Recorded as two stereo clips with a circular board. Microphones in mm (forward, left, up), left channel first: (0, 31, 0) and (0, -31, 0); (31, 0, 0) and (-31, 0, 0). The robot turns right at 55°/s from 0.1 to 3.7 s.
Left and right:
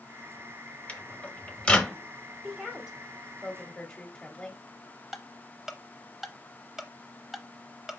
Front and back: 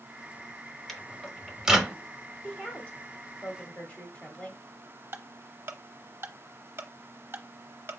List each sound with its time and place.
0.9 s a microwave: 80° left, 0.7 m; by 2.0 s 140° left, 0.7 m
2.4 s a woman speaking: 40° right, 1.1 m; by 4.6 s 30° left, 1.1 m
5.1 s ticking: 170° right, 0.7 m